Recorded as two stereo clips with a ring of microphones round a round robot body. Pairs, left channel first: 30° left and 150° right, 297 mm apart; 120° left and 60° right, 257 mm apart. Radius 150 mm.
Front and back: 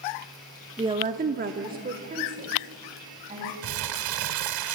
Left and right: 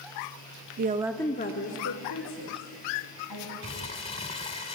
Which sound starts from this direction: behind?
Crumpling, at 3.6 s.